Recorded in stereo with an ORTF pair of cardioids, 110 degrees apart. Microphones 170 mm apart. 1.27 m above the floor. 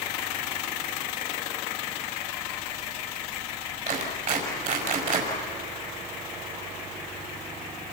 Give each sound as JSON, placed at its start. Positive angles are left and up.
{"t": 3.9, "sound": "a clap", "azimuth_deg": -55, "distance_m": 6.5}